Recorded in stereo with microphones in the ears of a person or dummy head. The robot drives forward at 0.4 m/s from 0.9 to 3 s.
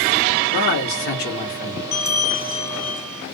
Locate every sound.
0.5 s a man speaking: 65° left (ahead or behind), 1.2 m; by 1.8 s 60° left (ahead or behind), 1.3 m
1.9 s a bell: 20° left (ahead or behind), 1.6 m; by 3.2 s 15° left (ahead or behind), 2 m